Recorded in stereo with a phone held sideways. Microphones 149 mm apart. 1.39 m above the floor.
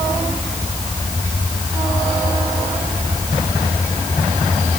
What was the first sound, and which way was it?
Only background noise.